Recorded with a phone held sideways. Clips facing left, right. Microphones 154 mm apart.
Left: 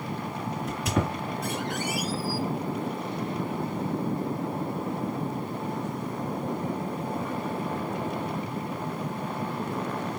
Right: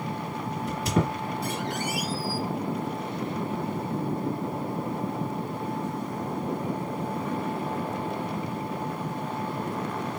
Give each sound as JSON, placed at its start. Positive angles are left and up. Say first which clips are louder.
{"t": 0.6, "sound": "a squeak", "louder": "right 2 dB", "side_deg": -30, "distance_m": 2.0}